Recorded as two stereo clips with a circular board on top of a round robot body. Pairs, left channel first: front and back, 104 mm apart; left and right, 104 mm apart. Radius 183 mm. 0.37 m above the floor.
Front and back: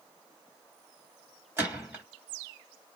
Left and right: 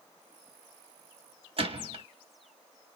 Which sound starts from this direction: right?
A gunshot, at 1.6 s.